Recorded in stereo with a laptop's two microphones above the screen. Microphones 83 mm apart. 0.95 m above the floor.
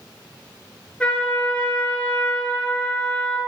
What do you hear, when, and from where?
1.0 s a trumpet: 15° left (ahead or behind), 2.5 m